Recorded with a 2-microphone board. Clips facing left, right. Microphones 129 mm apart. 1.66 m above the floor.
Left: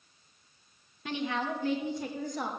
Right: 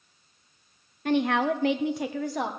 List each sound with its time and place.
1.1 s a woman speaking: 50° right (ahead or behind), 0.7 m; by 2.5 s 80° right, 1.3 m